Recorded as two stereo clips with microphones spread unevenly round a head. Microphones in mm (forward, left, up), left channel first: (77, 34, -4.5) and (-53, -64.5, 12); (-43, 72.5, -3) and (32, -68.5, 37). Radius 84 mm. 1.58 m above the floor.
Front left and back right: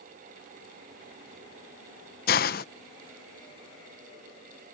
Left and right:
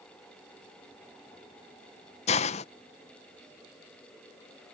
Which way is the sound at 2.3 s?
60° left.